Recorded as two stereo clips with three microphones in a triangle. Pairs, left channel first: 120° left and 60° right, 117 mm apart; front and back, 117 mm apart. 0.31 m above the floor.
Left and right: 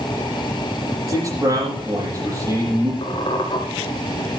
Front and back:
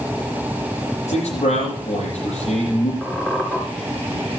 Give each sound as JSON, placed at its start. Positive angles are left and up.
{"t": 1.1, "sound": "a man speaking", "azimuth_deg": 0, "distance_m": 10.0}
{"t": 3.0, "sound": "a squeak", "azimuth_deg": 80, "distance_m": 2.5}